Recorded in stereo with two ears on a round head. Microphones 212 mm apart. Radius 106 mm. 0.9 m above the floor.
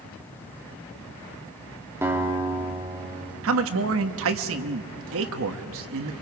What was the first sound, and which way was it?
A guitar, 10° right (ahead or behind).